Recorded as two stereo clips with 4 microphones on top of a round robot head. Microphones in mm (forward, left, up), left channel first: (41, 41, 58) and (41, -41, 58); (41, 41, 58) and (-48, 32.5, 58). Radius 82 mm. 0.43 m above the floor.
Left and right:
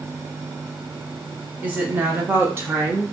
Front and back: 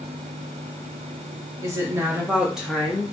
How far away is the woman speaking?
About 1.2 m.